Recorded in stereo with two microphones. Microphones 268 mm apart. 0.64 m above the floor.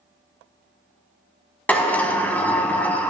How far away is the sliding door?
About 1.0 m.